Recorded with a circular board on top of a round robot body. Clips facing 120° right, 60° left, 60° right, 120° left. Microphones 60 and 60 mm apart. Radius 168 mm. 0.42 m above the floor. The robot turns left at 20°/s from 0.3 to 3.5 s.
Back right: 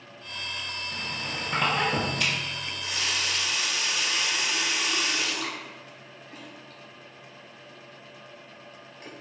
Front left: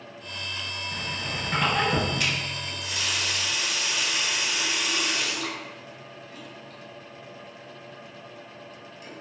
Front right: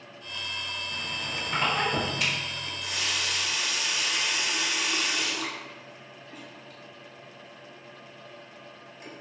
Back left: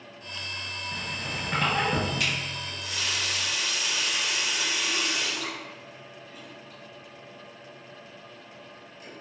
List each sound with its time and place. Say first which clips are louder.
0.9 s a squeak: front left 2 dB, back left 2 dB; 130° left, 1.7 m; by 2.4 s 100° left, 1.7 m
2.6 s a running tap: even, even; 65° right, 1.0 m; by 9.1 s 80° right, 1.0 m